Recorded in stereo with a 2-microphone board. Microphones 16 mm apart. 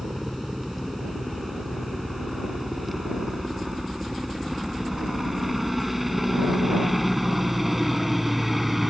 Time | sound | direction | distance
0.0 | a helicopter | 10° right (ahead or behind) | ?